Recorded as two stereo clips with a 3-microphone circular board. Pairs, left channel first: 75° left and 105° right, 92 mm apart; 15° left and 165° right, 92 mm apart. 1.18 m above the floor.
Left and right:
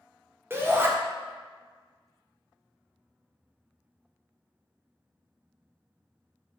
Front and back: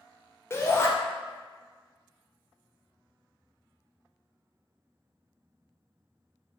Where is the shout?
45° right, 0.8 m.